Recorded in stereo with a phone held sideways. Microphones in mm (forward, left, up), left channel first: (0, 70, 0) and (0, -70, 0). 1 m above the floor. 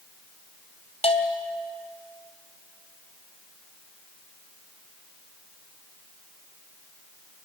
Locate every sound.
1.0 s a bell: 45° left (ahead or behind), 2.5 m